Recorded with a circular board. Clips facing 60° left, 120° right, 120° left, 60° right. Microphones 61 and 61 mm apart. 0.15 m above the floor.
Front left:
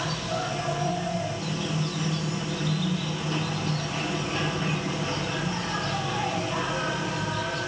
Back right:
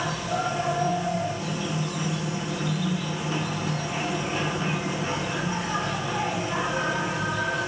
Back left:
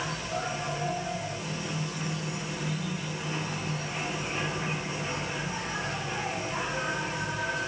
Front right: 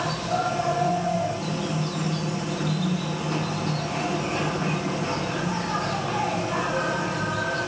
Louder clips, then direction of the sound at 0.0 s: Back right 2 dB, front right 7 dB; 40° right.